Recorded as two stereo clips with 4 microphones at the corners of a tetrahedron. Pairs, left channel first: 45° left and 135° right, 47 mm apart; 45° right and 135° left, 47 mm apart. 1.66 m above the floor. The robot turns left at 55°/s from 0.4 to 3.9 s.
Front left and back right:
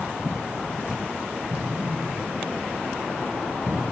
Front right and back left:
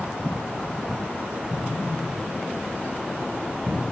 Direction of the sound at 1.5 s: 100° right.